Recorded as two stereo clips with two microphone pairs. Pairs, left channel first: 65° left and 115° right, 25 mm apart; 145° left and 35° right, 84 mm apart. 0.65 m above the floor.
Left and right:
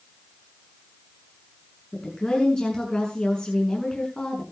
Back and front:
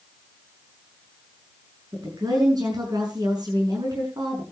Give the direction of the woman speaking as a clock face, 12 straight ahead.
12 o'clock.